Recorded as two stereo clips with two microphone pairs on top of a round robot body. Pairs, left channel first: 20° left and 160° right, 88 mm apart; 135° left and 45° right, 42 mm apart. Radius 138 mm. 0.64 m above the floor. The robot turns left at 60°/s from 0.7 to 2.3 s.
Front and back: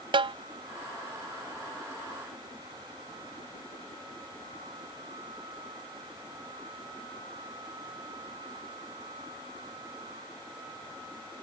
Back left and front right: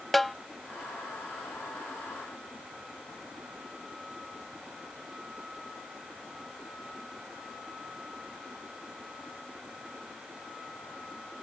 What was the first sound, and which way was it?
A snare drum, 135° right.